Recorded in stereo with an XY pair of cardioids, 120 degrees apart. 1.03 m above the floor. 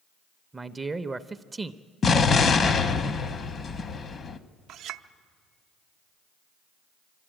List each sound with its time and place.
0.5 s a man speaking: 20° right, 0.5 m
2.0 s an explosion: 40° left, 0.8 m
4.7 s a clink: 70° right, 0.6 m